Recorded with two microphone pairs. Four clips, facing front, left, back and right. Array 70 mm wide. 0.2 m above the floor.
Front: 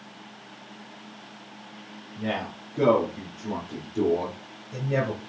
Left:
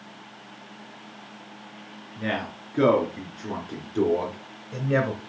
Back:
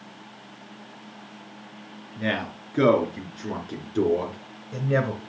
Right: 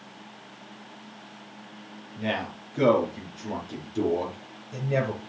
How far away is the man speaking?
About 3.5 m.